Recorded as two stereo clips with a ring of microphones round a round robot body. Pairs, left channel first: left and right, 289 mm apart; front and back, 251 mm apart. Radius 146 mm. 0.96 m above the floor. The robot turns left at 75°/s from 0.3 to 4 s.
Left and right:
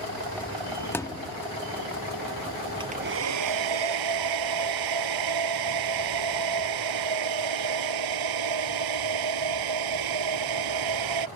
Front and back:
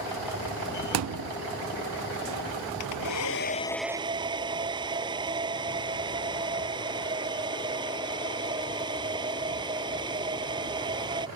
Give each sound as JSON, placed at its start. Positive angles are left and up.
{"t": 0.9, "sound": "a thud", "azimuth_deg": 175}
{"t": 2.8, "sound": "a hair dryer", "azimuth_deg": -15}